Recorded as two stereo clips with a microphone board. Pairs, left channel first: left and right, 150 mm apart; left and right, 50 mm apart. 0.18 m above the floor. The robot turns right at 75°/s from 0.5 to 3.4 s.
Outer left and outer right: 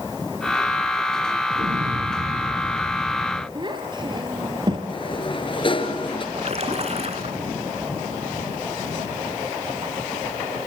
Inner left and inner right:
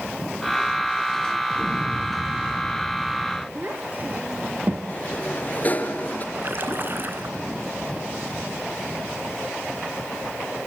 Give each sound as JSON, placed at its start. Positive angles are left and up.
{"t": 1.5, "sound": "an explosion", "azimuth_deg": -90, "distance_m": 2.5}
{"t": 3.5, "sound": "a child speaking", "side_deg": -30, "distance_m": 3.5}
{"t": 4.9, "sound": "a sliding door", "side_deg": 35, "distance_m": 2.5}
{"t": 6.3, "sound": "a splash", "side_deg": -45, "distance_m": 2.5}